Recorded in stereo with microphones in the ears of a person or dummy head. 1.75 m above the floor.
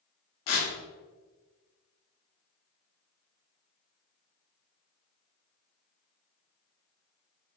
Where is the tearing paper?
75° left (ahead or behind), 1.3 m.